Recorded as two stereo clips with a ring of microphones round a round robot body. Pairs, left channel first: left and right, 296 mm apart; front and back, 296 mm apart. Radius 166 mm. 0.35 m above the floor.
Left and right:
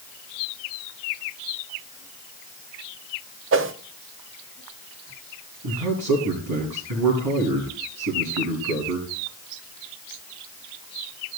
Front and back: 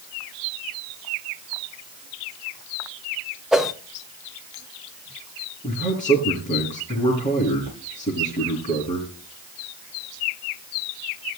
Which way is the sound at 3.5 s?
95° right.